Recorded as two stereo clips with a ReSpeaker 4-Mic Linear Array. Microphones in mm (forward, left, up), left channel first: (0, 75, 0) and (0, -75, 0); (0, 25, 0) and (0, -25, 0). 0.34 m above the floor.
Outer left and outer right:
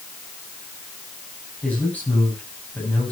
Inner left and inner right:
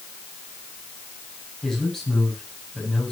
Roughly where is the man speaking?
Centre.